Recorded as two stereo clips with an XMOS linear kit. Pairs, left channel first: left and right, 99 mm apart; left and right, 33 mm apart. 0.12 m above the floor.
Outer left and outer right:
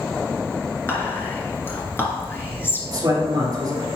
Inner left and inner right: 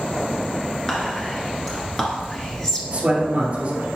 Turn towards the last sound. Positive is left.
turn(degrees=-40)  # may be behind; listen again after turning